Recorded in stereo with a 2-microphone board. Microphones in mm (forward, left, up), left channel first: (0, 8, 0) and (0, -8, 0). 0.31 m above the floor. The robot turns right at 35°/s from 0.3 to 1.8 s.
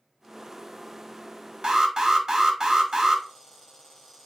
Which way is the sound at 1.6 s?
45° right (ahead or behind).